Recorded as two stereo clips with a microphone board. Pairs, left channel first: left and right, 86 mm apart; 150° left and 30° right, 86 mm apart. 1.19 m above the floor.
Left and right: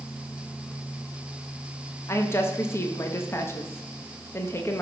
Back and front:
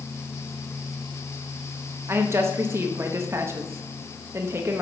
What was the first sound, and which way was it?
A woman speaking, 30° left.